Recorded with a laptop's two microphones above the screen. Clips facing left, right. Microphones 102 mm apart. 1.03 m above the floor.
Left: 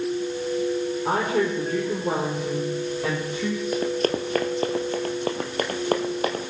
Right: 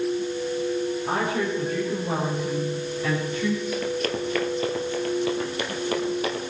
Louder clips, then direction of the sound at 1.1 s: Left 2 dB; 85° left.